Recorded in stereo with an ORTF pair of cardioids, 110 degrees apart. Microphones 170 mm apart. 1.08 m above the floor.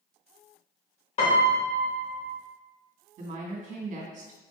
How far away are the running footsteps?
No running footsteps in this recording.